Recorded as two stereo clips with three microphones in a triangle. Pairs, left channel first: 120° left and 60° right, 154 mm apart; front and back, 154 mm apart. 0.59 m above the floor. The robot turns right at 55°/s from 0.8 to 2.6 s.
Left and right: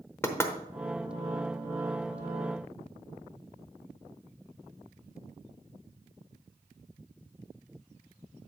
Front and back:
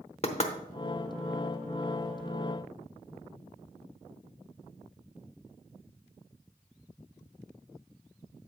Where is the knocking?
50° left, 0.9 m.